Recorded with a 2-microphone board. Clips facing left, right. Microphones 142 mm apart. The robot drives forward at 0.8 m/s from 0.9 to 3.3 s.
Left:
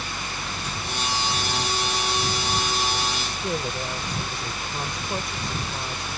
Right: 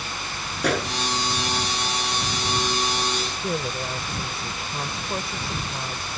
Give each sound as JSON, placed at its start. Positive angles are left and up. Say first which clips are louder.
{"t": 0.6, "sound": "a gunshot", "louder": "right 9 dB", "side_deg": -75}
{"t": 3.4, "sound": "a woman speaking", "louder": "left 1 dB", "side_deg": 0}